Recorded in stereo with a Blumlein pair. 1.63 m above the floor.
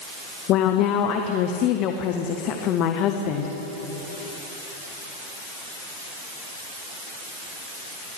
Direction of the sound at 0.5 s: 35° left.